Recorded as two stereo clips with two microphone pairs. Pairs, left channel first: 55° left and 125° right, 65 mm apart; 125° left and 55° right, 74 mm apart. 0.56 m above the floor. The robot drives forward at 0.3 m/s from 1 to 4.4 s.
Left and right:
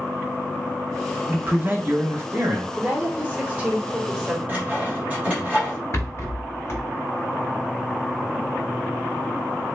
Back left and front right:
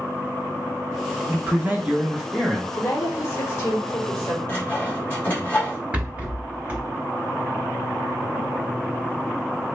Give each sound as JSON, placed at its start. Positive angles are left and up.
{"t": 1.3, "sound": "a man speaking", "azimuth_deg": -90, "distance_m": 0.7}
{"t": 2.8, "sound": "a woman speaking", "azimuth_deg": 170, "distance_m": 1.2}
{"t": 4.5, "sound": "sawing", "azimuth_deg": 175, "distance_m": 1.4}
{"t": 5.9, "sound": "a rattle", "azimuth_deg": 15, "distance_m": 0.9}